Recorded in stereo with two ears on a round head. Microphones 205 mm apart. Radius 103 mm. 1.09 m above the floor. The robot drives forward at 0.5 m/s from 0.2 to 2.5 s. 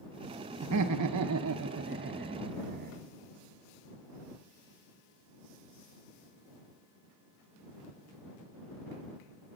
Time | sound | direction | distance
0.6 | laughter | 70° right (ahead or behind) | 0.6 m